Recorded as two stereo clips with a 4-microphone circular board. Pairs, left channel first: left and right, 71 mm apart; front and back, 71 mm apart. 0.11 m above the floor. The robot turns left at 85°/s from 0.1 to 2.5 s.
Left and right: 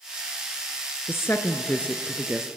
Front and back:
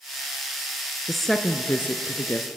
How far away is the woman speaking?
About 1.2 m.